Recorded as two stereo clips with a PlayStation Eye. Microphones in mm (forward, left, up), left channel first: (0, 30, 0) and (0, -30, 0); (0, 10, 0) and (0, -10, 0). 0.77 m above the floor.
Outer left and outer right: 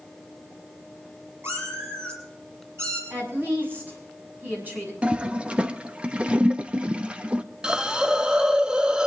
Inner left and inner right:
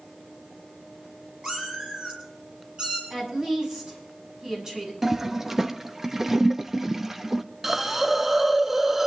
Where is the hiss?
15° right (ahead or behind), 0.6 m.